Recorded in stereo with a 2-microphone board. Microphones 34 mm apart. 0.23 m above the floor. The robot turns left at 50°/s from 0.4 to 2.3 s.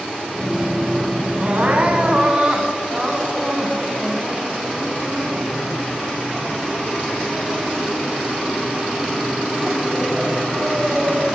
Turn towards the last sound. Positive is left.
turn(degrees=-155)